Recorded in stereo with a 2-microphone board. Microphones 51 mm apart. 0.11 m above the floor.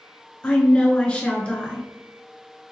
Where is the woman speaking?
20° left (ahead or behind), 1.1 m.